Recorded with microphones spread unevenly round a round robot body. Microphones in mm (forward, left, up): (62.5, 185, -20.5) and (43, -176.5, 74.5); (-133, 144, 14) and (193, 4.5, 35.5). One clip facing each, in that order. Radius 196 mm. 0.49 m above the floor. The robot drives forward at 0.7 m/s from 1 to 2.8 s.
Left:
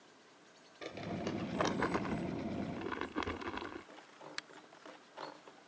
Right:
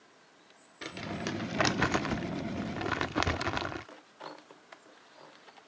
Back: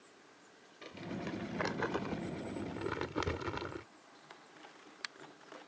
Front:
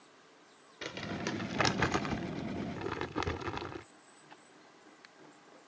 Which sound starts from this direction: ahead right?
Crumpling, at 0.8 s.